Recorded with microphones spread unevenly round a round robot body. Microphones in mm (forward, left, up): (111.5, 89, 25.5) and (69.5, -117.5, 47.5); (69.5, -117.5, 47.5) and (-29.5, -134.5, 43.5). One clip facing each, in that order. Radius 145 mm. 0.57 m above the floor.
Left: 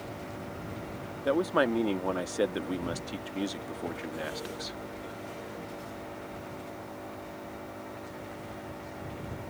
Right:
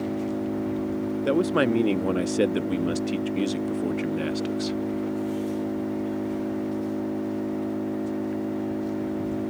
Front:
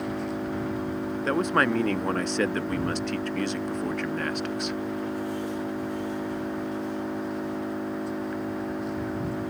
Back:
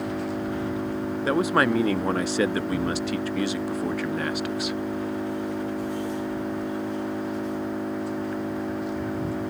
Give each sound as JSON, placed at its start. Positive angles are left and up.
{"t": 0.0, "sound": "an engine running", "azimuth_deg": -80}
{"t": 1.2, "sound": "a man speaking", "azimuth_deg": -105}